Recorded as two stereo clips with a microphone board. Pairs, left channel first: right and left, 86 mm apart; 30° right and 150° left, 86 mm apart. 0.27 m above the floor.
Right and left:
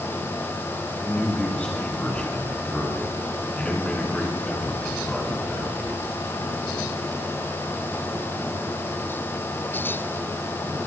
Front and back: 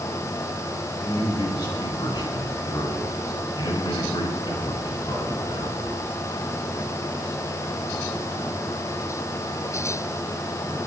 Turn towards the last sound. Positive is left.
turn(degrees=-20)